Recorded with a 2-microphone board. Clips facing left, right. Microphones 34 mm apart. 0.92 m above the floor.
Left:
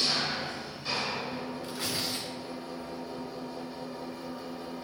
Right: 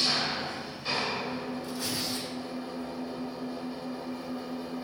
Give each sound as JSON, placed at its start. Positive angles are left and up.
{"t": 0.0, "sound": "an engine running", "side_deg": -10, "distance_m": 1.1}
{"t": 1.6, "sound": "tearing paper", "side_deg": 45, "distance_m": 2.0}